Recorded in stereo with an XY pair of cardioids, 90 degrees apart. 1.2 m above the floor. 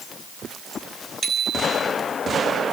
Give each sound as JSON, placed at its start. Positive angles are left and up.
{"t": 1.2, "sound": "a bicycle bell", "azimuth_deg": -40, "distance_m": 5.5}